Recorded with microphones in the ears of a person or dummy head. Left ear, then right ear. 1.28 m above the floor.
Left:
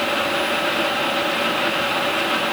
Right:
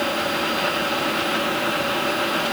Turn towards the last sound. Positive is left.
No sound to turn to.